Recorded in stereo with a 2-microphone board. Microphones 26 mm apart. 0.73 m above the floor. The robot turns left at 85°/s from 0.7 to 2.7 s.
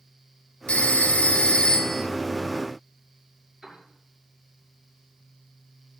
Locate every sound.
0.7 s a phone ringing: 120° left, 1.8 m; by 2.0 s 5° left, 1.8 m
3.6 s a piano: 15° right (ahead or behind), 6 m